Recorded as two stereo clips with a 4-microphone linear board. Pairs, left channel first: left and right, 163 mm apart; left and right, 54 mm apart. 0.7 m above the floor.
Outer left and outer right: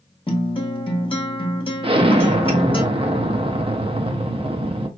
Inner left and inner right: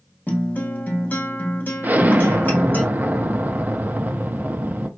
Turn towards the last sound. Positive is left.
turn(degrees=-35)  # may be behind; listen again after turning